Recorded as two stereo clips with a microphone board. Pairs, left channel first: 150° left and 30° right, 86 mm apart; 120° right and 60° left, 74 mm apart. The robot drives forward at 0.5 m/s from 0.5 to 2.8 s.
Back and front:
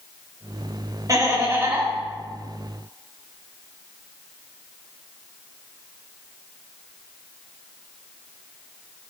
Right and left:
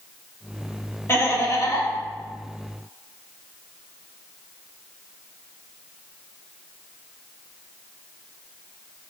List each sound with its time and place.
1.1 s laughter: 70° right, 1.1 m; by 1.9 s 95° right, 1.1 m